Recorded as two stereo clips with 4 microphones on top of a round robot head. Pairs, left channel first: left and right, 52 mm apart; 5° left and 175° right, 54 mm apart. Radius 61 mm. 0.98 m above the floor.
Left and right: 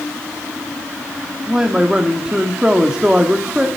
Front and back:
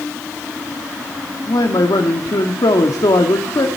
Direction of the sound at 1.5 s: 15° right.